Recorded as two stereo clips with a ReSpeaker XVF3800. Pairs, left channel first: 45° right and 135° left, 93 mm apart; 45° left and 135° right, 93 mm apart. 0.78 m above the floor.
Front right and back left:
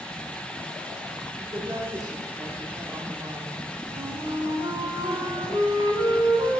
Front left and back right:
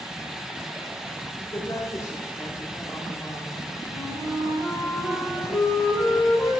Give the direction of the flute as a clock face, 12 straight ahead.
8 o'clock.